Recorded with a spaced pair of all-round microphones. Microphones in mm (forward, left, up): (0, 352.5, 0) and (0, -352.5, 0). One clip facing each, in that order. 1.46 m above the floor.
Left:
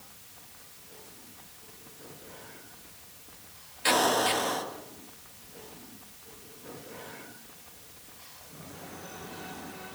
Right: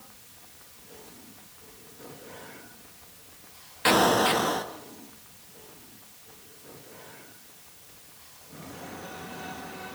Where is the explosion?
75° right (ahead or behind), 1.9 m.